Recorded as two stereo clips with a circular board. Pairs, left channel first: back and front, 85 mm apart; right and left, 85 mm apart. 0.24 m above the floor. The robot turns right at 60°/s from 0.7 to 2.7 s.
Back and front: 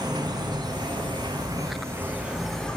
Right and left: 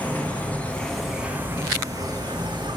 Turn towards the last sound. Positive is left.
turn(degrees=100)